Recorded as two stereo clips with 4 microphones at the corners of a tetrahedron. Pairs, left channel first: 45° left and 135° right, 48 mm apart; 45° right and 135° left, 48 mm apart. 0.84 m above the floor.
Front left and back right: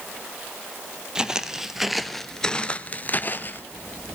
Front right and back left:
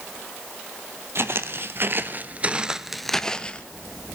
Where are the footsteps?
155° left, 1.6 m; by 3.6 s 20° left, 1.2 m.